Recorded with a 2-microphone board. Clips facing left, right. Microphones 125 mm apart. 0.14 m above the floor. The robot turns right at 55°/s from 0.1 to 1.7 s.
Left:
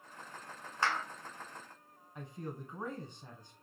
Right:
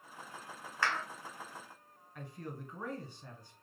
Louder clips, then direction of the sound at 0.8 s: Left 1 dB; 25° left (ahead or behind).